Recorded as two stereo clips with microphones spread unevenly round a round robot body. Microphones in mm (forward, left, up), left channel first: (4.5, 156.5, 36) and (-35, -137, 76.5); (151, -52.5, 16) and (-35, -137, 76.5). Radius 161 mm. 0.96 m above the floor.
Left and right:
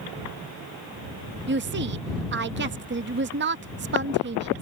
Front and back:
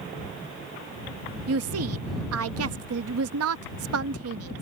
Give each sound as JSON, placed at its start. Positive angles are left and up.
{"t": 1.5, "sound": "a woman speaking", "azimuth_deg": -155}